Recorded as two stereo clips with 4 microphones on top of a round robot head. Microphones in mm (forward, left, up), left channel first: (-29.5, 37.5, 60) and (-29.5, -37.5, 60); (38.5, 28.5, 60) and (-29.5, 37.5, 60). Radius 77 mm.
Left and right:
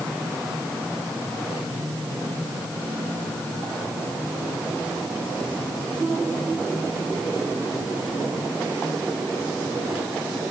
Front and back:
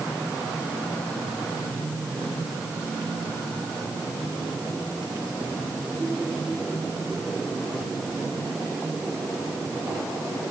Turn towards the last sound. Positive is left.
No sound to turn to.